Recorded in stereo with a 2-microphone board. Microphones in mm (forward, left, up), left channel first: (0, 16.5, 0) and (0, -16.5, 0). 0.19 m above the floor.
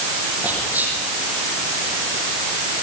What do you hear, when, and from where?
0.4 s whispering: 55° right (ahead or behind), 6.5 m